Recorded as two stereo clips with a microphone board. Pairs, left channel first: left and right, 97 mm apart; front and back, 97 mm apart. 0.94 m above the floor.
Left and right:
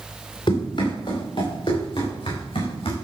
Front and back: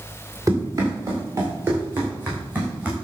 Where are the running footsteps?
125° left, 7 m; by 3.0 s 105° left, 5.5 m.